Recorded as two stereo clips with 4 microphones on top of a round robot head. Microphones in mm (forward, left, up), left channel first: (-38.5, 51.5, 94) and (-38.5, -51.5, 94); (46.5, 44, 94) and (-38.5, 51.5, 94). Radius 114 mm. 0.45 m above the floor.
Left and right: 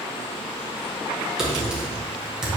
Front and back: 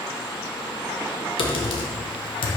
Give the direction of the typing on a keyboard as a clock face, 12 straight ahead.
12 o'clock.